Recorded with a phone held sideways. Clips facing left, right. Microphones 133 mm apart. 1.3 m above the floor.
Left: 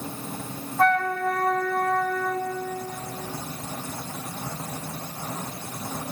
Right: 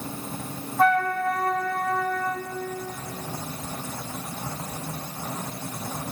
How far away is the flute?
About 0.8 m.